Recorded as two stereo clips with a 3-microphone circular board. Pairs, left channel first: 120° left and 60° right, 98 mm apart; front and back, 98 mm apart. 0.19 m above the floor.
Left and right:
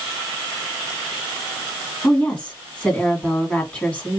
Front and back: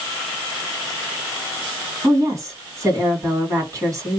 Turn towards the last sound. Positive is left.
turn(degrees=-175)